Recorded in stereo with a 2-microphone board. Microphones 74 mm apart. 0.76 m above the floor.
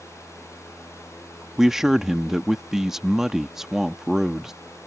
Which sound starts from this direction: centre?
A man speaking, at 1.6 s.